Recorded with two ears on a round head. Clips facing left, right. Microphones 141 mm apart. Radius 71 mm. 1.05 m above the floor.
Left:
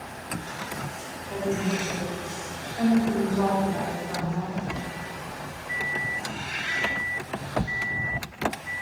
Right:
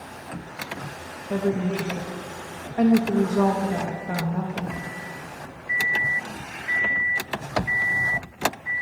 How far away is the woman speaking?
About 0.6 m.